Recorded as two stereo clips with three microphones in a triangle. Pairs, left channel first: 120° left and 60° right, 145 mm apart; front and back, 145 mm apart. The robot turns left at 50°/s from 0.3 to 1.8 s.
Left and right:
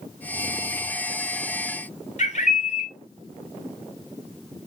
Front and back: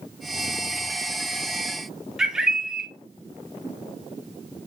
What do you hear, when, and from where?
2.2 s a bird: 95° left, 1.2 m